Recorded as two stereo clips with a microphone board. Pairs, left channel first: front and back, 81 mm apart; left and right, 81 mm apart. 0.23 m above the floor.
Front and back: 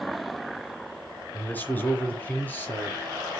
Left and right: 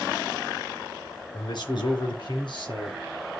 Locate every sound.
1.3 s a man speaking: 65° left, 3.5 m; by 3.0 s 70° left, 5 m